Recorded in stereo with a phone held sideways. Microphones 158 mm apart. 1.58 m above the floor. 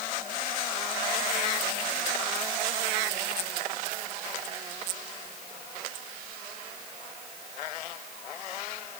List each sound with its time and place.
Only background noise.